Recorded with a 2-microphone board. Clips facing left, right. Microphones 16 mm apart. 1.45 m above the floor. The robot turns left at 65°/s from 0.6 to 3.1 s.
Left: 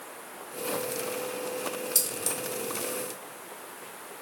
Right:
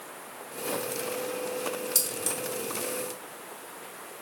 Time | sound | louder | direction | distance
1.9 | keys jangling | even | 5° right (ahead or behind) | 0.8 m